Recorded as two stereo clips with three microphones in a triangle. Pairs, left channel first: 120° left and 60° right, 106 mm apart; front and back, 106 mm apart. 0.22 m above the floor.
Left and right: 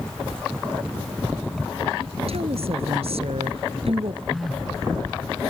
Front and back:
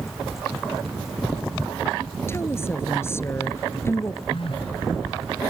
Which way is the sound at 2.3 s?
65° right.